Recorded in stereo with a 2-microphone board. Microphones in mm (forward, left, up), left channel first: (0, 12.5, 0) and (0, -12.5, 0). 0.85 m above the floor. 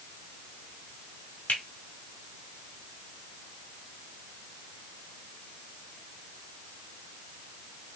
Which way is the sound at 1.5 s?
70° left (ahead or behind).